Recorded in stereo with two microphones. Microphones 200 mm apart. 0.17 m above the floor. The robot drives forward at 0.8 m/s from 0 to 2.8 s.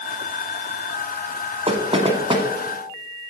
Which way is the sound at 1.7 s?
30° right (ahead or behind).